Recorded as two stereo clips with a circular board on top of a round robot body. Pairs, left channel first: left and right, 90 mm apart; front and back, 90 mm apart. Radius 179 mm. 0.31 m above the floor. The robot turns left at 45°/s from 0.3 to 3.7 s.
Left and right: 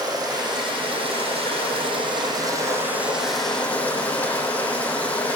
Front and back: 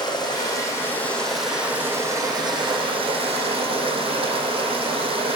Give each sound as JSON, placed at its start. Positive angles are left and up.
{"t": 0.0, "sound": "running water", "azimuth_deg": -45, "distance_m": 6.0}